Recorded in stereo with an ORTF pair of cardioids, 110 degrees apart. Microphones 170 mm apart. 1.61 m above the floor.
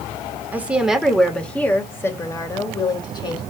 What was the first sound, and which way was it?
A woman speaking, 10° right.